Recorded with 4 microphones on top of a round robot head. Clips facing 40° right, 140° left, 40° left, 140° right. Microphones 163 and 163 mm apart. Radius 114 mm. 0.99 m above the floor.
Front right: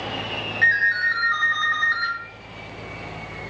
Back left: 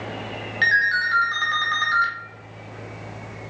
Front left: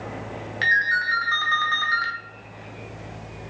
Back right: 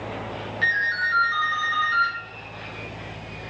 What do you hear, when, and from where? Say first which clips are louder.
0.6 s a ringtone: back left 1 dB, front left 2 dB; 75° left, 0.5 m